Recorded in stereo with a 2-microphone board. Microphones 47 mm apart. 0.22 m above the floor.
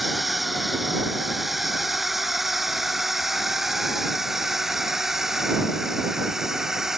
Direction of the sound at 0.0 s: Centre (ahead or behind).